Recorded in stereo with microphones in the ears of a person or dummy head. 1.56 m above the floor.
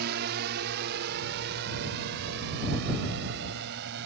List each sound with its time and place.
0.0 s a drone: 60° right (ahead or behind); by 4.1 s 65° right (ahead or behind)